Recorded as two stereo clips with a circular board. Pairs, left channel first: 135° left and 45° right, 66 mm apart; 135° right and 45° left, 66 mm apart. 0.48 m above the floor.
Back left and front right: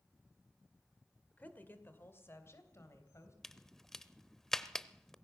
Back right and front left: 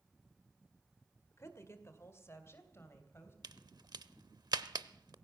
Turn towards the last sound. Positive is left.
turn(degrees=50)